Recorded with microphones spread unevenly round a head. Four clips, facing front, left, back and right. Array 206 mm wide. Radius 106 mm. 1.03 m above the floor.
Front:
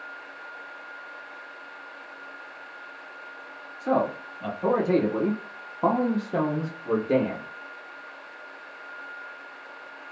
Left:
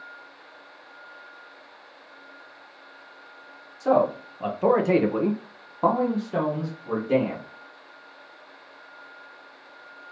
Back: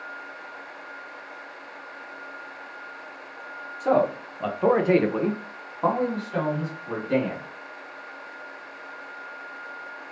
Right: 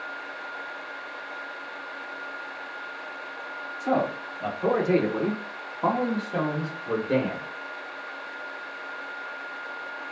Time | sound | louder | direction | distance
3.8 | a man speaking | left 5 dB, back 3 dB | 145° left | 1.3 m